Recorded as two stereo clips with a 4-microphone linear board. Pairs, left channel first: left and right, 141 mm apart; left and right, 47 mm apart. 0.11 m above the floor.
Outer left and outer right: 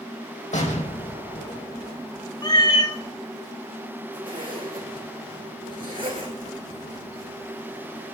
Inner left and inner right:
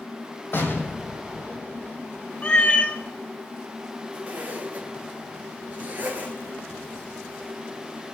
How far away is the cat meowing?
About 1.6 m.